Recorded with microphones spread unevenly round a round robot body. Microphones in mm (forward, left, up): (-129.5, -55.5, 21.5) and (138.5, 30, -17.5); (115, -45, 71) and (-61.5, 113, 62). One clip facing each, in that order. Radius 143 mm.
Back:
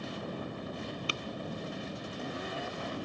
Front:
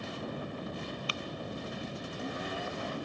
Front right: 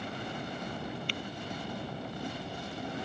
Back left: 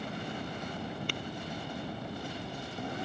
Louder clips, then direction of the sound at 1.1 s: Back 1 dB, back left 1 dB; 170° right.